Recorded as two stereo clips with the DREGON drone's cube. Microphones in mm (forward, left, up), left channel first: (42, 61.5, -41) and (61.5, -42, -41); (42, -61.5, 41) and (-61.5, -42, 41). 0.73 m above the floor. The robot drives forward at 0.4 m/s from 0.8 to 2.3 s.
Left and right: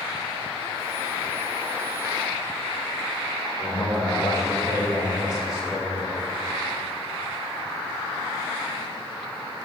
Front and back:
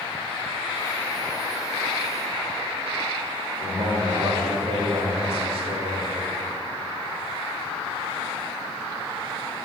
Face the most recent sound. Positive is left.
turn(degrees=150)